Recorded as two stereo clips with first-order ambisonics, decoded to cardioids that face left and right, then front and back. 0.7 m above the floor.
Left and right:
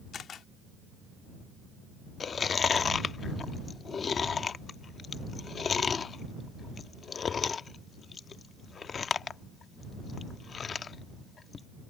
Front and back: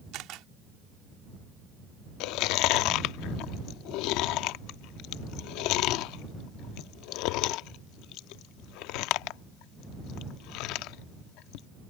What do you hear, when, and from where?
0.1 s a camera shutter: 150° left
2.2 s chewing: 25° left